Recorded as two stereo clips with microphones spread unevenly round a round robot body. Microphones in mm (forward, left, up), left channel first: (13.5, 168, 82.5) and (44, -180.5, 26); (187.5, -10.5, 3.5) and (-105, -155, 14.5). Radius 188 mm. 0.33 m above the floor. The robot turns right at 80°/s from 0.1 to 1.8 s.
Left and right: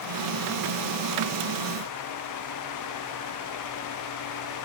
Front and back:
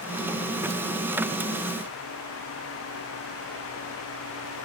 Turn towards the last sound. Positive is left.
No sound to turn to.